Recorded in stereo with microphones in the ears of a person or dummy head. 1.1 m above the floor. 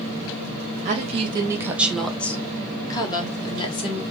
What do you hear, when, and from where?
0.8 s a woman speaking: 35° right (ahead or behind), 0.8 m; by 4.0 s 30° left (ahead or behind), 1.7 m